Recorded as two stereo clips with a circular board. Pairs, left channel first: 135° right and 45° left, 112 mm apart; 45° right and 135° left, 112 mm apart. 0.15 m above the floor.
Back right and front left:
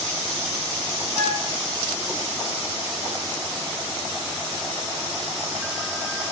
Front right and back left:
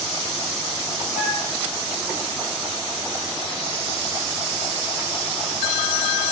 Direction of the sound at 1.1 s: Straight ahead.